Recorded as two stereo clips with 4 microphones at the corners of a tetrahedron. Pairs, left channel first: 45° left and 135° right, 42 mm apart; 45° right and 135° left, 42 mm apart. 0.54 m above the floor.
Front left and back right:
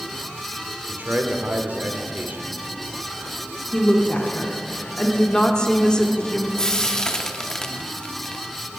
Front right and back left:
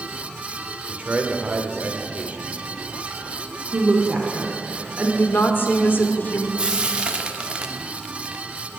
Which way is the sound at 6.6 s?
100° left.